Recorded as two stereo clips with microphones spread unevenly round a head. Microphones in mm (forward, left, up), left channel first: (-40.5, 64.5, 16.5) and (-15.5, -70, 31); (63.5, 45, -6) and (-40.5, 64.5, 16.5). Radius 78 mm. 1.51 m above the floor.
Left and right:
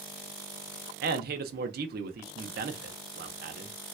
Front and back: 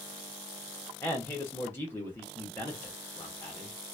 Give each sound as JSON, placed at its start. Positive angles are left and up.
{"t": 1.0, "sound": "a man speaking", "azimuth_deg": -80, "distance_m": 0.7}